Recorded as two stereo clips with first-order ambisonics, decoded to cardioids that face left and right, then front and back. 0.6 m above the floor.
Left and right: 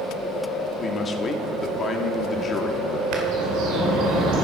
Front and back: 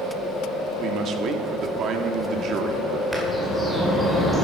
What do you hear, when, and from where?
0.8 s a man speaking: 145° left, 0.8 m
3.1 s a bird: 95° right, 1.8 m